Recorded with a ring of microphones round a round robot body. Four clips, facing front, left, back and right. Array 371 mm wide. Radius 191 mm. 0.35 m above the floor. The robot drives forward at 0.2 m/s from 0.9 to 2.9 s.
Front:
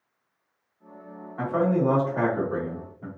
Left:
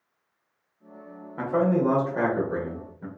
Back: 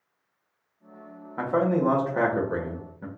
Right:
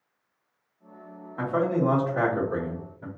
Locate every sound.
1.4 s a man speaking: 170° left, 1.2 m; by 3.1 s 175° left, 1.4 m